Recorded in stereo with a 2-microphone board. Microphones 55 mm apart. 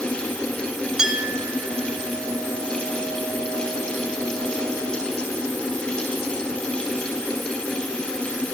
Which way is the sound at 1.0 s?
10° right (ahead or behind).